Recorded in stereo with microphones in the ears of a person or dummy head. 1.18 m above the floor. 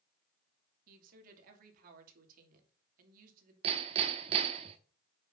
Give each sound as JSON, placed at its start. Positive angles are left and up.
{"t": 0.9, "sound": "a woman speaking", "side_deg": -55, "distance_m": 2.5}
{"t": 3.6, "sound": "hammering", "side_deg": -35, "distance_m": 0.9}